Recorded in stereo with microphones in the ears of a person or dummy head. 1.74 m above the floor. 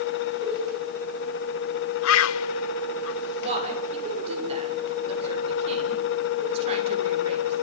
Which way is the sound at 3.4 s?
35° right (ahead or behind).